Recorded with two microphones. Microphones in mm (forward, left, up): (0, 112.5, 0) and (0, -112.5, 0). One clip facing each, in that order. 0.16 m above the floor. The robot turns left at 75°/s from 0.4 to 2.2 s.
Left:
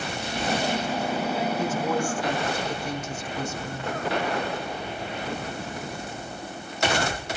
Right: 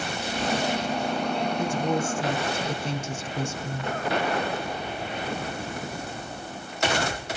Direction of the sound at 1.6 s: 15° right.